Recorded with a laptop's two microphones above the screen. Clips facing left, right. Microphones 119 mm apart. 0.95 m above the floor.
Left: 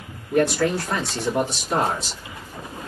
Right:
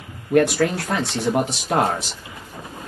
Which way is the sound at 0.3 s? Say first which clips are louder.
Right 3 dB; 75° right (ahead or behind).